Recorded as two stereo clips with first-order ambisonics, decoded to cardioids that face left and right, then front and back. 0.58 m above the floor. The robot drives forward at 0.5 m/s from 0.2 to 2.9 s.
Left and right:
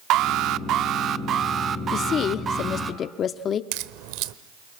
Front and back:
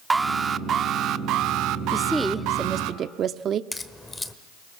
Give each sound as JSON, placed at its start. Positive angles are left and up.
{"t": 0.1, "sound": "an alarm", "azimuth_deg": -105, "distance_m": 0.7}
{"t": 1.9, "sound": "a woman speaking", "azimuth_deg": 75, "distance_m": 0.7}
{"t": 3.7, "sound": "a crack", "azimuth_deg": -80, "distance_m": 1.1}